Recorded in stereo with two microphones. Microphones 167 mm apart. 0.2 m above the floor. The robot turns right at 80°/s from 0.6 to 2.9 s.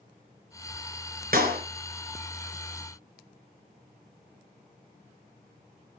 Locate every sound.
1.3 s a clap: 60° right (ahead or behind), 2.5 m; by 1.6 s 65° right (ahead or behind), 2.5 m